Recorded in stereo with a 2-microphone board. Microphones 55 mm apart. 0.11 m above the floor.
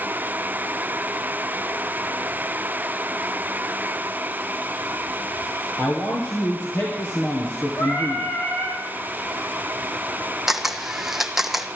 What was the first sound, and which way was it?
A man speaking, 55° left (ahead or behind).